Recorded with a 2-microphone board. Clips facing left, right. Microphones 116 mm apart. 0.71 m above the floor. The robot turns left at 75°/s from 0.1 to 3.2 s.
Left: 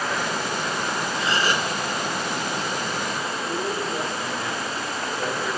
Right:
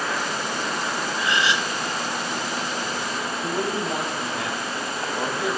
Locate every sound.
1.2 s a gasp: 155° left, 0.8 m; by 1.7 s 115° left, 0.8 m
3.4 s a man speaking: 75° right (ahead or behind), 6 m